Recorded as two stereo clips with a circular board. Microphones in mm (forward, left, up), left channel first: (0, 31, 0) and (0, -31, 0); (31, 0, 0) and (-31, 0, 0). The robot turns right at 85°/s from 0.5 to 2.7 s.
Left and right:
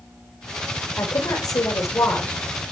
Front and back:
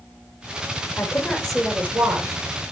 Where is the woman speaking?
40° left, 5 m; by 2.4 s 165° left, 5 m.